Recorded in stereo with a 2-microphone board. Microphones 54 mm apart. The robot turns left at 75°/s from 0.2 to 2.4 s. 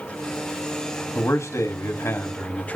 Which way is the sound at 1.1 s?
125° left.